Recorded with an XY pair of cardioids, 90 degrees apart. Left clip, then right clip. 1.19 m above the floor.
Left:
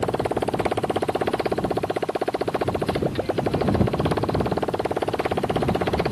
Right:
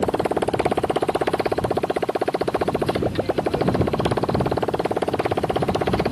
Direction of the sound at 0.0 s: 20° right.